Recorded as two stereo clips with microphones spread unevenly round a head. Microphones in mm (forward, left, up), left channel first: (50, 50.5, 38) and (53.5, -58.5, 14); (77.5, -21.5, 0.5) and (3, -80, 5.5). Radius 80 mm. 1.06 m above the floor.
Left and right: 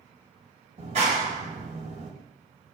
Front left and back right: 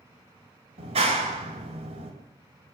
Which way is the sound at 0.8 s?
135° right.